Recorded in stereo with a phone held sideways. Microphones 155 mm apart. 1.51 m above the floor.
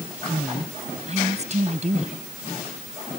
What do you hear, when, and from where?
0.3 s a woman speaking: 45° right (ahead or behind)